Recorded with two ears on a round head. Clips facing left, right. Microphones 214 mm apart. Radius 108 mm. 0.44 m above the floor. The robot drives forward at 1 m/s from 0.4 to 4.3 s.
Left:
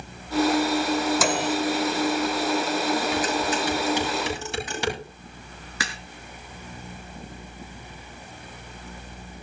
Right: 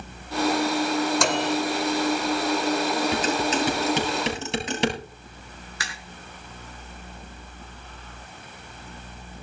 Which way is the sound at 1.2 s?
5° left (ahead or behind).